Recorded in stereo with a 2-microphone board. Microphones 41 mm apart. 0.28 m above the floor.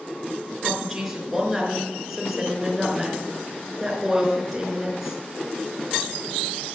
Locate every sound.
0.6 s a woman speaking: 5° right (ahead or behind), 4.5 m